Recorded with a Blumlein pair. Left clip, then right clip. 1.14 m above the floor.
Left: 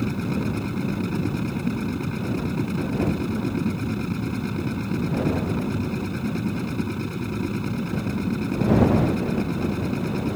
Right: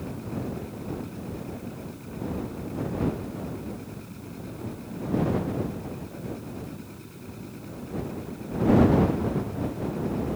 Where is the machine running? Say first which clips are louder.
Left 7 dB; 55° left.